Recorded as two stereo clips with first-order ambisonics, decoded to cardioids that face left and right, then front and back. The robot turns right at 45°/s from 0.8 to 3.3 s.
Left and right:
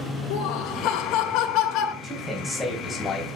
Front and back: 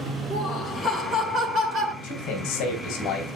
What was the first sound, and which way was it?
Laughter, 90° left.